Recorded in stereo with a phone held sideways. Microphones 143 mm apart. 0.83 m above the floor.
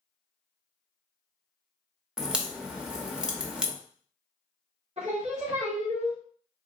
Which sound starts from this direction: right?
Singing, at 5.0 s.